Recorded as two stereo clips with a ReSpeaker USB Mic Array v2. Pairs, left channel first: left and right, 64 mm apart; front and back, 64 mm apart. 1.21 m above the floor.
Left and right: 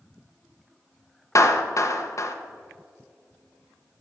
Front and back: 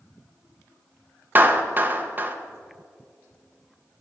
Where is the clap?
120° left, 0.7 m.